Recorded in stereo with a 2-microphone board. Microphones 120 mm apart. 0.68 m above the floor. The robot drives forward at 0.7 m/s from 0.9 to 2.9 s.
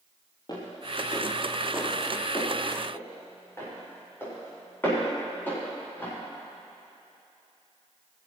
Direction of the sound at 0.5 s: 40° left (ahead or behind).